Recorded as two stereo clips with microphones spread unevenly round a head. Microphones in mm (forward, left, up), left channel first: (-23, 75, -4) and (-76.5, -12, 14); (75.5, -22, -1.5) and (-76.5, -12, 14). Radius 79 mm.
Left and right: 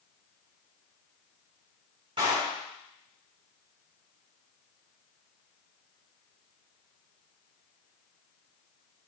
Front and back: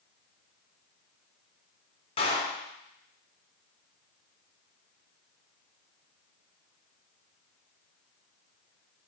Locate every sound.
2.2 s a clap: 60° right, 3 m